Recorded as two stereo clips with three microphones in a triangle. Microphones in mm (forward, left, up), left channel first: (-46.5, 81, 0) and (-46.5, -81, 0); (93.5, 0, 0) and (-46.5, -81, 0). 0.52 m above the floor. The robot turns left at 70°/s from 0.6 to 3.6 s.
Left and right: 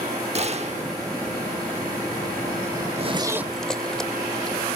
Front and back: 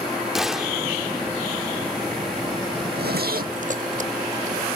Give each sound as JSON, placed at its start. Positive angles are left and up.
{"t": 0.3, "sound": "a gunshot", "azimuth_deg": -65, "distance_m": 0.9}
{"t": 2.8, "sound": "a zipper", "azimuth_deg": -130, "distance_m": 0.8}